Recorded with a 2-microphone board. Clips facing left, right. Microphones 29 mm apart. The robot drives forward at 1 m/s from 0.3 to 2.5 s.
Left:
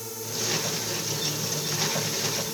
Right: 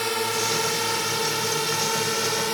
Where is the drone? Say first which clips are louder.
Right 9 dB; 55° right (ahead or behind); by 2.5 s 50° right (ahead or behind).